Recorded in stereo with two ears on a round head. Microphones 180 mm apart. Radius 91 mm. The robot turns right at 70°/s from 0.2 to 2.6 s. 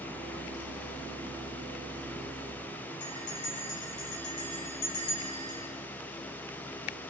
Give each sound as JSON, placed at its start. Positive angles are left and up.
{"t": 3.0, "sound": "a bell", "side_deg": 55, "distance_m": 4.5}